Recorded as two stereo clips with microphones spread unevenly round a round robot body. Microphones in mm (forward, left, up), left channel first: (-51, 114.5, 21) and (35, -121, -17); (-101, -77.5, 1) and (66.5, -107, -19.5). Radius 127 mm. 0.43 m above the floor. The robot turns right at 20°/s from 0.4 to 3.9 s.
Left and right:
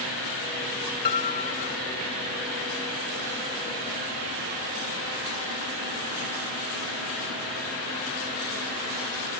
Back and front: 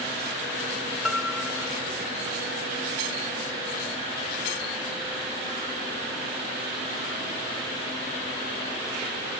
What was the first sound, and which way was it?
A piano, 70° left.